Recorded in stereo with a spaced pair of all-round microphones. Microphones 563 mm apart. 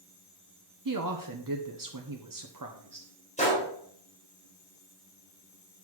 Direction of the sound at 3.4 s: 10° left (ahead or behind).